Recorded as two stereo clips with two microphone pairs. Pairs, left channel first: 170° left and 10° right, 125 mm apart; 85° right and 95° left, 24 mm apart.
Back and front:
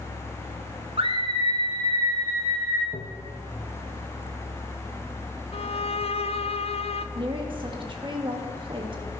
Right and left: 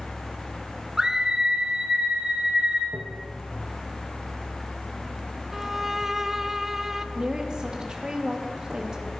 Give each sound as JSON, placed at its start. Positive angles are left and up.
{"t": 1.0, "sound": "a scream", "azimuth_deg": 30, "distance_m": 1.9}
{"t": 2.9, "sound": "tapping", "azimuth_deg": 180, "distance_m": 1.4}
{"t": 5.5, "sound": "a violin", "azimuth_deg": 170, "distance_m": 0.7}
{"t": 7.2, "sound": "a woman speaking", "azimuth_deg": 40, "distance_m": 2.5}